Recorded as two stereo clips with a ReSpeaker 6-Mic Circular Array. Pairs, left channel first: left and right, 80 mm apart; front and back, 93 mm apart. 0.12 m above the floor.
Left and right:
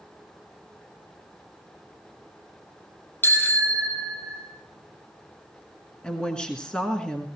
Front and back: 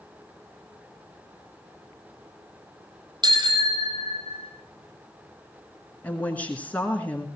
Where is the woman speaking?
35° left, 1.6 m.